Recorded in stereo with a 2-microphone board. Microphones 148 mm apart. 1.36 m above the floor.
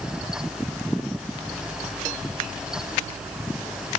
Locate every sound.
Only background noise.